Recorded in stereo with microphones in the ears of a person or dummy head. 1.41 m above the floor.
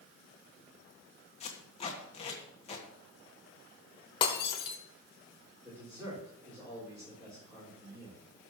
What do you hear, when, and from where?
1.4 s tape being pulled: 30° left (ahead or behind), 1.7 m
4.2 s breaking glass: 30° left (ahead or behind), 2.5 m
5.6 s a man speaking: 15° right (ahead or behind), 6 m